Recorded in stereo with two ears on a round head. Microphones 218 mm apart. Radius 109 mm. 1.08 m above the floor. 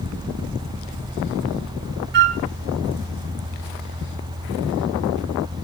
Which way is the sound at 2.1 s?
45° right (ahead or behind).